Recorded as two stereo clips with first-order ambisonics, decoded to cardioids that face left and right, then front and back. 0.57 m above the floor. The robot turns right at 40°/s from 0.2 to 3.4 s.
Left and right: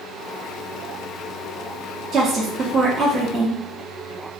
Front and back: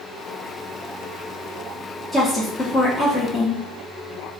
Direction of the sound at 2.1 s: 80° right.